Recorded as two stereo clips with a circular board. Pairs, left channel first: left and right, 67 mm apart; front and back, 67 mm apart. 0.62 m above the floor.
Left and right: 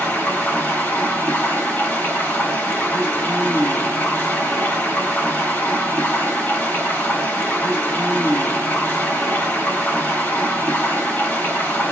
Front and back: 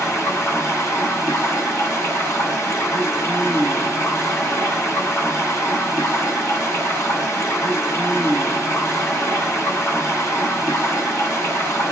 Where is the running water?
35° left, 1.5 m.